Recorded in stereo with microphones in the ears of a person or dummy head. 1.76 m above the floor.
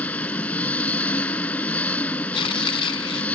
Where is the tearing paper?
25° left (ahead or behind).